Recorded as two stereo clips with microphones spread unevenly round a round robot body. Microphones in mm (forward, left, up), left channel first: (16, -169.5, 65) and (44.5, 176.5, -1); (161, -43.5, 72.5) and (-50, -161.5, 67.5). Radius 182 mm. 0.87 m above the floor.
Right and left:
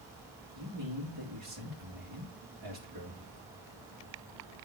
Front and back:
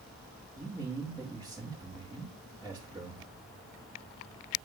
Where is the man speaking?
115° left, 2 m.